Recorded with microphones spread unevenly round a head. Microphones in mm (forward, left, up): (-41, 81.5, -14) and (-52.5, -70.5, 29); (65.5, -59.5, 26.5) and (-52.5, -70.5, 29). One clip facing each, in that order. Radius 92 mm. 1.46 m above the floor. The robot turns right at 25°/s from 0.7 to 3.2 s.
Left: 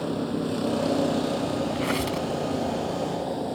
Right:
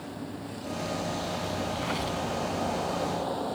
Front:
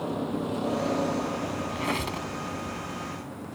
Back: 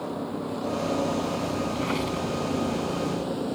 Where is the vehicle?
95° left; by 3.6 s 155° left.